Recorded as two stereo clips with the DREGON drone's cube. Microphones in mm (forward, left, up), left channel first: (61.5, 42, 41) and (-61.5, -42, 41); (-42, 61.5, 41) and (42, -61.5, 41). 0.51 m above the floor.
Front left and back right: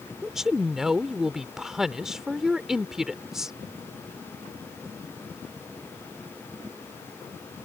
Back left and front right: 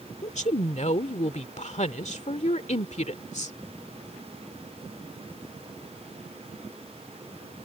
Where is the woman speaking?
130° left.